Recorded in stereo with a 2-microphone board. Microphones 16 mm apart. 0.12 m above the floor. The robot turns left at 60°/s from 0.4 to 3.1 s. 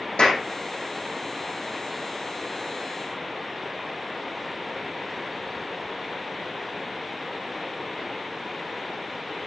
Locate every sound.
0.2 s a clap: 75° left (ahead or behind), 6 m